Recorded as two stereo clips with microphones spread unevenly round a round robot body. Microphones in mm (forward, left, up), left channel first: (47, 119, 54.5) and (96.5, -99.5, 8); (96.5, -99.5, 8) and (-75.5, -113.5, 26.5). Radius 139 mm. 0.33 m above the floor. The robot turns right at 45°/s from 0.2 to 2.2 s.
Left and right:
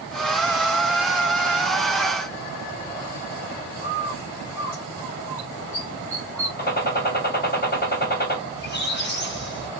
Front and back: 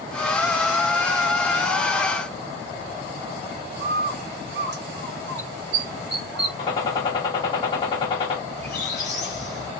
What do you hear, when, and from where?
3.8 s a bird: 160° right, 1.5 m
6.6 s a gunshot: 60° left, 1.2 m
8.5 s a squeak: 55° left, 1.4 m